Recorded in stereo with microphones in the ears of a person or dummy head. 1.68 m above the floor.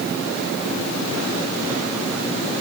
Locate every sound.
Only background noise.